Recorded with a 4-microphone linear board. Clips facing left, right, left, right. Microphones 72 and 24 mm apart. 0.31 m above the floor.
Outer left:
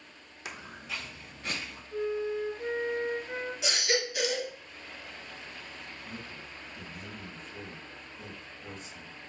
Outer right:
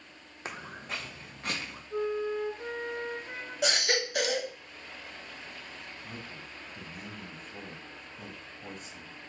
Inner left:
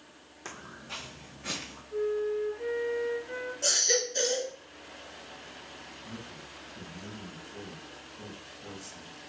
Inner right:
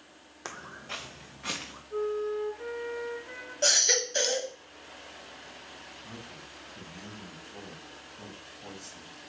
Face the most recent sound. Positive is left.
turn(degrees=-60)  # may be behind; listen again after turning